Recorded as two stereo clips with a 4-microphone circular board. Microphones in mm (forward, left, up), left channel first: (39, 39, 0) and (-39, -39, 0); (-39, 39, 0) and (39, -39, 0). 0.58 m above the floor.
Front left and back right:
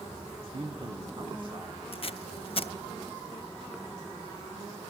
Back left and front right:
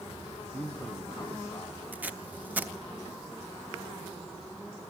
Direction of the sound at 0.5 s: 140° right.